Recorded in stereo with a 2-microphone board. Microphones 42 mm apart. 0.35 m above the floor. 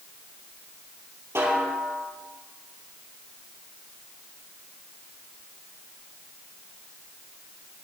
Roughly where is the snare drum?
Right.